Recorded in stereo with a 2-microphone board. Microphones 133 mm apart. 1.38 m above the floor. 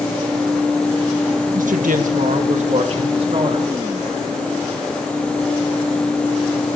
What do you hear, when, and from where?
1.5 s a woman speaking: 75° right (ahead or behind), 1.7 m; by 3.7 s 40° right (ahead or behind), 3.5 m